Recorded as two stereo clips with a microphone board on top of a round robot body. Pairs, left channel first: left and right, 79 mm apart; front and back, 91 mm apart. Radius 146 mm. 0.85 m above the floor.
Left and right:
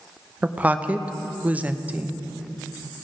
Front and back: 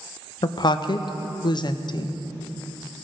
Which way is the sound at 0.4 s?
20° right.